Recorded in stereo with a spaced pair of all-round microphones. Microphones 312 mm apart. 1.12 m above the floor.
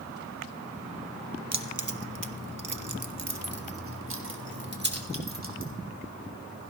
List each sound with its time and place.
1.5 s keys jangling: 55° right (ahead or behind), 0.9 m; by 5.7 s 30° right (ahead or behind), 2 m